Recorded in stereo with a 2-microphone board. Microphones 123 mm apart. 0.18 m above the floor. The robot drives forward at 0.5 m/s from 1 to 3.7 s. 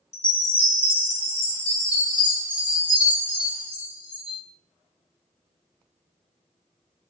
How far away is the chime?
About 1.4 m.